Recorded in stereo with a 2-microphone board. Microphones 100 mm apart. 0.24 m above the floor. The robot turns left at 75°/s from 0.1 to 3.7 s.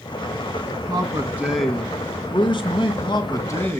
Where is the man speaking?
125° right, 2.5 m; by 3.8 s 25° left, 2.5 m.